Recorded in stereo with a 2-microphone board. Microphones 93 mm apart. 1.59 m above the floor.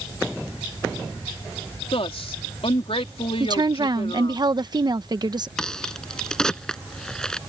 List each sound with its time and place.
1.9 s a woman speaking: 85° left
3.4 s a woman speaking: 50° right (ahead or behind)
5.6 s a crack: 5° left (ahead or behind)